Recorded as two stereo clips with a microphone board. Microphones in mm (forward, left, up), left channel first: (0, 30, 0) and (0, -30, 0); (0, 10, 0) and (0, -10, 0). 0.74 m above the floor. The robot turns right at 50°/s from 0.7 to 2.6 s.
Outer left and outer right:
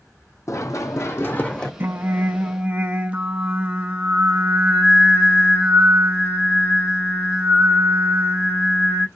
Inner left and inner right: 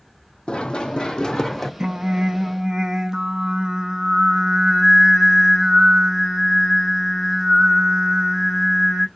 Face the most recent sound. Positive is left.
turn(degrees=-40)